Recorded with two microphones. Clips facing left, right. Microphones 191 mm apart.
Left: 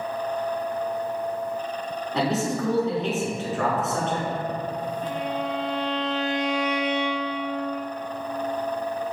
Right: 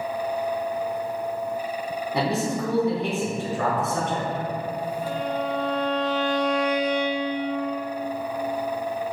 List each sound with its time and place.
2.1 s a man speaking: 15° right (ahead or behind), 1.2 m
5.0 s a violin: 25° left (ahead or behind), 0.7 m